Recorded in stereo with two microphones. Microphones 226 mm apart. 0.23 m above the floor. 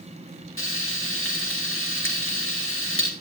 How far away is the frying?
About 3.5 m.